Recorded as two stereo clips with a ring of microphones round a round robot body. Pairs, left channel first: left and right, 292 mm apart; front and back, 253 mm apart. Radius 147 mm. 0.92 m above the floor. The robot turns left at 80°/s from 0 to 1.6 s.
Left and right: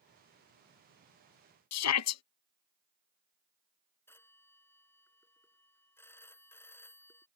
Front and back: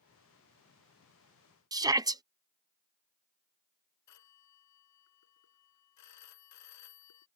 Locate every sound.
1.7 s a shout: 105° left
4.1 s a phone ringing: 5° left